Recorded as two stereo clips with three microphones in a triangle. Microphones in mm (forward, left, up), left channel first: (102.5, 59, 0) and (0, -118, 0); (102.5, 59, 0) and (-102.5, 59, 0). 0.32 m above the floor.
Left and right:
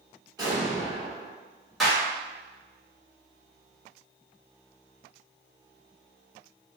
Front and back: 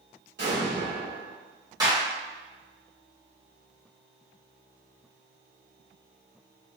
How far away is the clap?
About 1.1 m.